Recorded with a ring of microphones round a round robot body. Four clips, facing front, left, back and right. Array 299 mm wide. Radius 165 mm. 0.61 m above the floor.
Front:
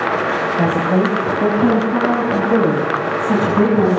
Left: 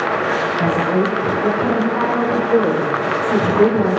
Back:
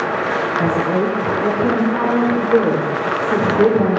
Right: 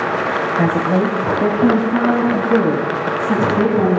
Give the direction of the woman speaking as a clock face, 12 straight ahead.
2 o'clock.